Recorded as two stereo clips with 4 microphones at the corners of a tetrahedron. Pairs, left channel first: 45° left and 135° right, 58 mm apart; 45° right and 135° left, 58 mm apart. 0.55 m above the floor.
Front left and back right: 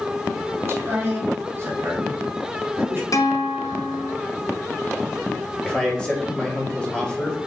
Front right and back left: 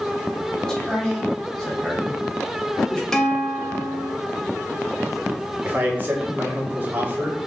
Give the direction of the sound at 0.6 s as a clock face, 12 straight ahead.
4 o'clock.